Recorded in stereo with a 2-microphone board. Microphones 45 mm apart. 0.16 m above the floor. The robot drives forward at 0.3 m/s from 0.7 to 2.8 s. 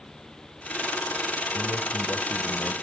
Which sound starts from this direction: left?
A man speaking, at 1.5 s.